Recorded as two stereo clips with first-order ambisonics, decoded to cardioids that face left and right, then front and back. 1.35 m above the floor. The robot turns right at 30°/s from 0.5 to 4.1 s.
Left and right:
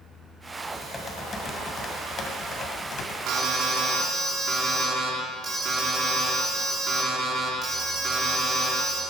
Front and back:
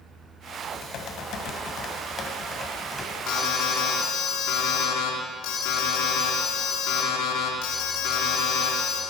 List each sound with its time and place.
0.6 s typing on a keyboard: 5° left, 1.5 m; by 3.2 s 80° left, 1.5 m
3.3 s an alarm: 45° right, 2.5 m; by 9.0 s 20° right, 2.5 m